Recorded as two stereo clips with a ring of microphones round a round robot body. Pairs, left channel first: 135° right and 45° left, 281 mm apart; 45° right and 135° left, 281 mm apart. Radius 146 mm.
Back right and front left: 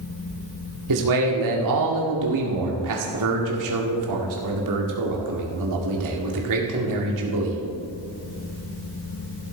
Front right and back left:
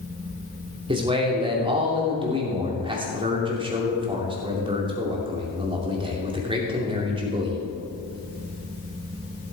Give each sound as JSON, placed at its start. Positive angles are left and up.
{"t": 0.9, "sound": "a man speaking", "azimuth_deg": 60, "distance_m": 2.5}